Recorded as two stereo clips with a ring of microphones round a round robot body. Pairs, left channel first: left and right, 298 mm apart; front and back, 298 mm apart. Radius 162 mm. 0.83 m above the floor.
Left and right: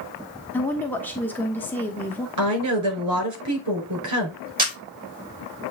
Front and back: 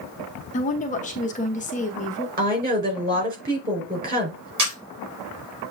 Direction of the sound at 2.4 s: 120° right.